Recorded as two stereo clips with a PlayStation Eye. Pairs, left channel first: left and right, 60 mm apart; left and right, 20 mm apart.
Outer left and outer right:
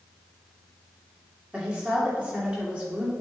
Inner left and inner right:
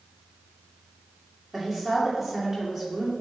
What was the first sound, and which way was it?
A woman speaking, 20° right (ahead or behind).